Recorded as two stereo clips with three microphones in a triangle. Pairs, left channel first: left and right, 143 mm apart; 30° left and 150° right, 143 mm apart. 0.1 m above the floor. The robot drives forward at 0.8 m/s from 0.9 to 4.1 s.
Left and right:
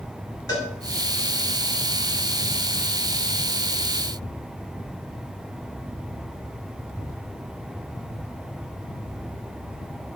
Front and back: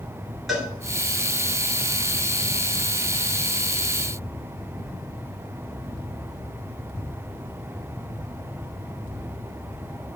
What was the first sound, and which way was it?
A cowbell, 120° left.